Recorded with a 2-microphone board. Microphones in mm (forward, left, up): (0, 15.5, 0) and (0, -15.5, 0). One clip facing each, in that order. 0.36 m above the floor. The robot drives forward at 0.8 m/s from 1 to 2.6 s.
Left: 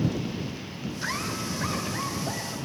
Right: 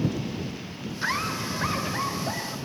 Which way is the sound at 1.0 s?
20° right (ahead or behind).